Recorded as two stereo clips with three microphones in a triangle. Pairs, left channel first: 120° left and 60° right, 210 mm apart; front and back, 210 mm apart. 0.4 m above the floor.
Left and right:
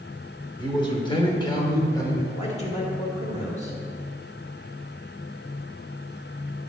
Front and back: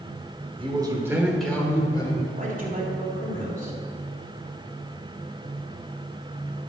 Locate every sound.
0.6 s a man speaking: 160° left, 1.2 m; by 2.2 s 55° left, 1.4 m
2.3 s a man speaking: 160° left, 1.8 m